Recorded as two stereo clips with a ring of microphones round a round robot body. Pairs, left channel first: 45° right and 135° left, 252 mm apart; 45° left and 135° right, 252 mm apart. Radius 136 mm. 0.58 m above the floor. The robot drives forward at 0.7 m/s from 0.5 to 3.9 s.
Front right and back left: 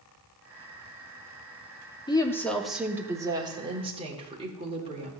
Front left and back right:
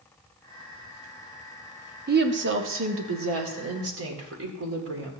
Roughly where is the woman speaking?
Right.